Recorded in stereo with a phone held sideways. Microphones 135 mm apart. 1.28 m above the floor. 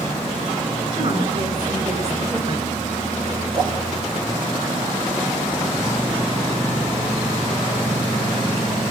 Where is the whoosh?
35° right (ahead or behind), 4.5 m.